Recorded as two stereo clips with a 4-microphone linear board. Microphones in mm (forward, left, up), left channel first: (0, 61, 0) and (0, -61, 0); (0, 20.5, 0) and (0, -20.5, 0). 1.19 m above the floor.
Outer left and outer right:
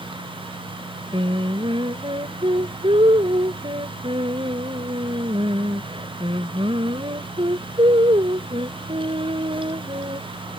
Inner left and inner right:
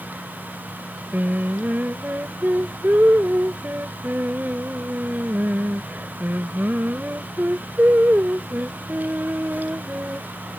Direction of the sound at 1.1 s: 45° right (ahead or behind).